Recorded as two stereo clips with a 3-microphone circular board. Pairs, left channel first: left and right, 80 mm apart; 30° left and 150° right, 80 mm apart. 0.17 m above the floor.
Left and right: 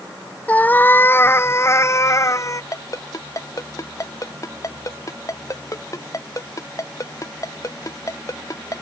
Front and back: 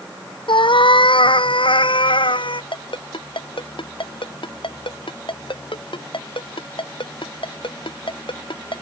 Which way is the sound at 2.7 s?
40° left.